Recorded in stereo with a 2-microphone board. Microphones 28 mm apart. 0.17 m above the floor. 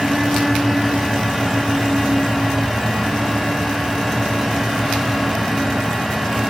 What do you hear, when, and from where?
Only background noise.